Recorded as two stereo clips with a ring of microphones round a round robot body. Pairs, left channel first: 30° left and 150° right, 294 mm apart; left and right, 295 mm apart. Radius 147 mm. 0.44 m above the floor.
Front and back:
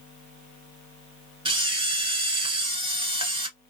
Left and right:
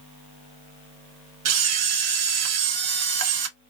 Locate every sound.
1.4 s a camera shutter: 75° right, 0.9 m